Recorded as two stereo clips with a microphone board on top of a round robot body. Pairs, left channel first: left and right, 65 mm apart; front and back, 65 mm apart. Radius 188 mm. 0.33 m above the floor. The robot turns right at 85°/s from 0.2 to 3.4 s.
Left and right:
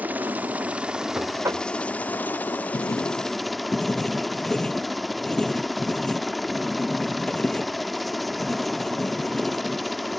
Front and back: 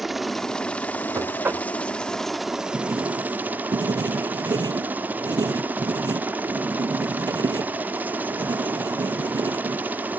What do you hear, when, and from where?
0.0 s a helicopter: 95° right; by 10.2 s straight behind
1.1 s knocking: 155° right; by 1.7 s 110° right
2.7 s writing: 110° left; by 9.8 s 165° left